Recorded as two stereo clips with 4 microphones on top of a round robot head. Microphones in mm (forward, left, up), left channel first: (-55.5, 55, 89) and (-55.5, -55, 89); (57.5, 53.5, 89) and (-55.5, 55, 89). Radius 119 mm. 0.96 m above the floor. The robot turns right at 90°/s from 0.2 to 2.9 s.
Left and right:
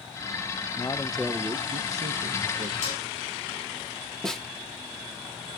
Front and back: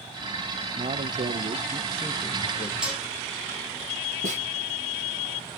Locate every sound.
0.8 s a man speaking: 145° left, 0.8 m; by 2.7 s 40° right, 0.8 m
2.8 s dishes clattering: 95° left, 6.5 m; by 3.0 s 105° left, 6.5 m
4.2 s a snare drum: 175° left, 3 m